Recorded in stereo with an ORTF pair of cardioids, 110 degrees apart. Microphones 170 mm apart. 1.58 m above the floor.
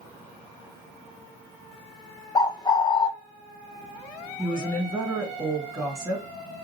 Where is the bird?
25° left, 0.6 m.